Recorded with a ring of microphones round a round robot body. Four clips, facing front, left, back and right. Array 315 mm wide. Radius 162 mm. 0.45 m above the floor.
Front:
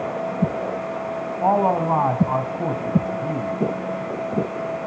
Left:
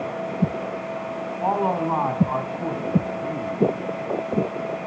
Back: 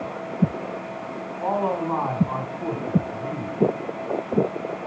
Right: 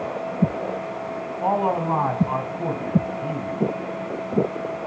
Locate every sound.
1.4 s a man speaking: 15° right, 3.5 m